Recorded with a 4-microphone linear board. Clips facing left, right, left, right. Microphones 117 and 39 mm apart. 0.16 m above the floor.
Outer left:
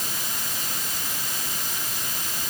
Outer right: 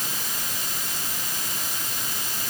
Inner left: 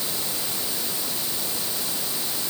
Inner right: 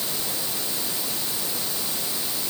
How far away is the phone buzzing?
I don't hear a phone buzzing.